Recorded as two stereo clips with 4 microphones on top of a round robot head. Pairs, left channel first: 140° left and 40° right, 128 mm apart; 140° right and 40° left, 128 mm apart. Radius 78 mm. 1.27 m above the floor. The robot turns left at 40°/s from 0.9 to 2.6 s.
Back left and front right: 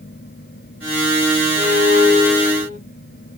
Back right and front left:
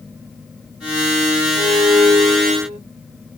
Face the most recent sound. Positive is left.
turn(degrees=95)